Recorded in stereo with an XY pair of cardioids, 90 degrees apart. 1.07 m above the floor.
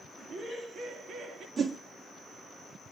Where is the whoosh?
50° right, 2 m.